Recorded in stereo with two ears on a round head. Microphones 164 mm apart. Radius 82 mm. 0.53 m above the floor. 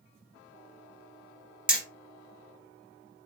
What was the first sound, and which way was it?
Hammering, 5° right (ahead or behind).